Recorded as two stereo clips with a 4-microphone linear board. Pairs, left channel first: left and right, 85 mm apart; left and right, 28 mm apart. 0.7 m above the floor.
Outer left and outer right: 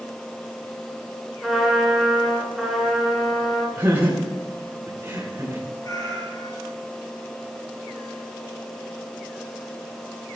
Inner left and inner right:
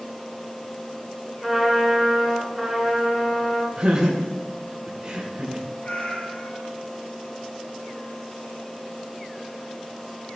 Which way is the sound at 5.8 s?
45° left (ahead or behind).